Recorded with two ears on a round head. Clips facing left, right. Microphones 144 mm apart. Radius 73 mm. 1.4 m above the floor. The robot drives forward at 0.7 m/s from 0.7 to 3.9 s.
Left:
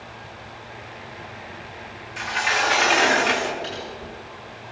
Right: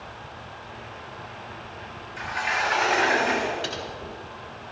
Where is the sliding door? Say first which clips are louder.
Left 3 dB; 75° left (ahead or behind), 2.0 m.